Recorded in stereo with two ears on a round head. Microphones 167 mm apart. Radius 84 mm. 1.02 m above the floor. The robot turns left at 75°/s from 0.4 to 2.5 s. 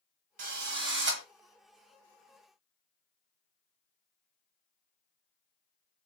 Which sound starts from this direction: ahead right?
A drill, at 0.4 s.